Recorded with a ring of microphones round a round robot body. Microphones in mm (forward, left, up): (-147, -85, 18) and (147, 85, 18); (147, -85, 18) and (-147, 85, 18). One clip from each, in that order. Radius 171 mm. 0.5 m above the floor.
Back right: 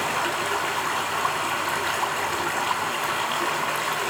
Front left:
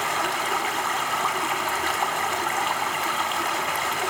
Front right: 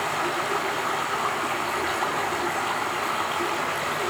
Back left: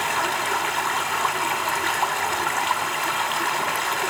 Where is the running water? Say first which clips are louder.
Even, back left 3 dB; 100° left, 2.5 m.